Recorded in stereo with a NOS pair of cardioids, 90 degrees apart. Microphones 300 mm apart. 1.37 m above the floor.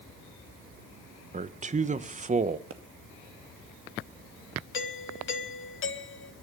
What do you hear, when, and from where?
1.3 s a man speaking: 25° right, 1.3 m
2.7 s a pop: 45° right, 2.5 m
4.7 s a doorbell: 45° left, 2.5 m